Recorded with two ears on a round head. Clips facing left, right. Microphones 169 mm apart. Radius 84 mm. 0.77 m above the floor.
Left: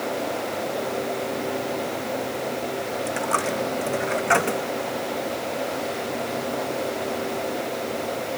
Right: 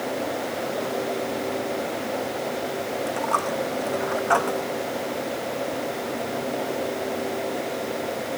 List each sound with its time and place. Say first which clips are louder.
3.1 s a dropped coin: left 1 dB; 30° left (ahead or behind)